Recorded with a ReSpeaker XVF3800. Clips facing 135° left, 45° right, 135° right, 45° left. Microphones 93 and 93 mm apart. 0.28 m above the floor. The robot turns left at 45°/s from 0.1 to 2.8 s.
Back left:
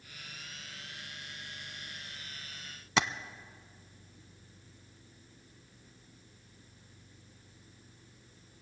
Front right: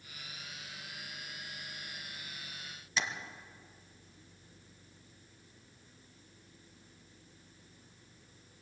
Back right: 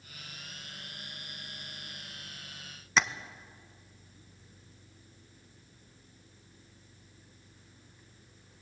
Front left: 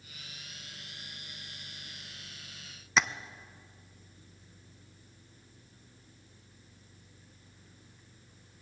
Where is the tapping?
135° left, 0.7 m.